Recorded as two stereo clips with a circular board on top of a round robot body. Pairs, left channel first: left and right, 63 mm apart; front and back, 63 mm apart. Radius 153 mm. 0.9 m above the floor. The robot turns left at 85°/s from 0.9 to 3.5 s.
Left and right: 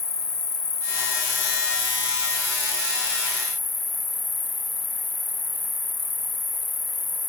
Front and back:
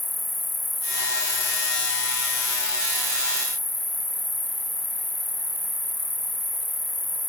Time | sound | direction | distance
0.0 | an insect | 90° left | 0.8 m